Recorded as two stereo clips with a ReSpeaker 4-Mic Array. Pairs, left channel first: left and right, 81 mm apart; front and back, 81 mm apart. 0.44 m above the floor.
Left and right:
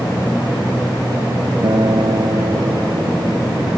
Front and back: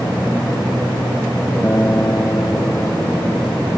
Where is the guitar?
65° right.